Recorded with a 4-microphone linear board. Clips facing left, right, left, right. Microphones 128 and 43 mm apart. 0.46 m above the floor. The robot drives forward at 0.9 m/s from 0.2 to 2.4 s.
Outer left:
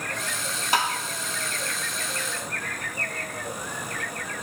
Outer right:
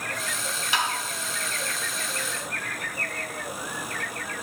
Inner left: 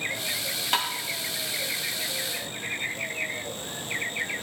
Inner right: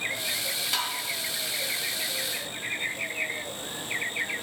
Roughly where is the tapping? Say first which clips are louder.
Outer left 3 dB, inner left 5 dB; left.